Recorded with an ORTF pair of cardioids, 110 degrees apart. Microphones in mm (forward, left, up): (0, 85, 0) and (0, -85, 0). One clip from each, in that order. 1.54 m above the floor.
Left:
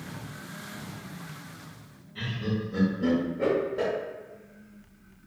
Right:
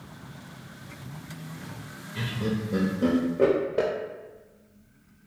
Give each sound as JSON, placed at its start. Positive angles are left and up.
{"t": 2.1, "sound": "laughter", "azimuth_deg": -45, "distance_m": 0.6}